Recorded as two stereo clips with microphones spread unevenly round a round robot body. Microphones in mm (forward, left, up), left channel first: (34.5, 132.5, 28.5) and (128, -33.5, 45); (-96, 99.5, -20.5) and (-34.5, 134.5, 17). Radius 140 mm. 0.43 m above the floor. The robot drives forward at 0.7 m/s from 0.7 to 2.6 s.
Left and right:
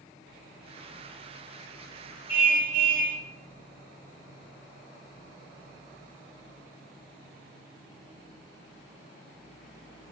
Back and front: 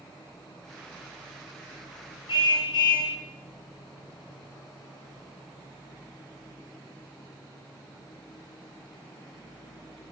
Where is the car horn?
140° right, 5 m.